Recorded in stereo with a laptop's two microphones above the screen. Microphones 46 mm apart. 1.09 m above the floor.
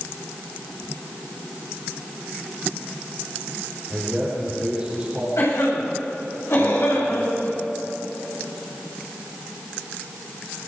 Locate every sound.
3.9 s a man speaking: 20° right (ahead or behind), 5 m
5.4 s a cough: 75° left (ahead or behind), 8 m